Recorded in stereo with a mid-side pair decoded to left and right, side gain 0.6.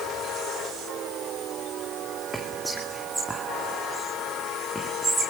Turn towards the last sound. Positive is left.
turn(degrees=-5)